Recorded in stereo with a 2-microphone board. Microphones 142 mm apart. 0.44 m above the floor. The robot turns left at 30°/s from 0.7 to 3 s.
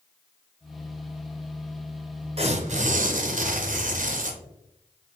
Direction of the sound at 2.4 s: 40° right (ahead or behind).